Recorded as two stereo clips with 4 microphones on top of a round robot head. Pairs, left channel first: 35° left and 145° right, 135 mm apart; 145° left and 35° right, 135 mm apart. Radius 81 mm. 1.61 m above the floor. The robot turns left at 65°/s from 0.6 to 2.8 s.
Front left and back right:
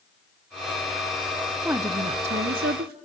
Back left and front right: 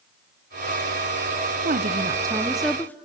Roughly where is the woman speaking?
Ahead right.